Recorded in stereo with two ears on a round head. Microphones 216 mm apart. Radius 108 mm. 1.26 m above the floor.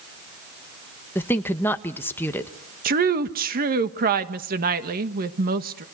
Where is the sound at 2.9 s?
40° right (ahead or behind), 1.6 m.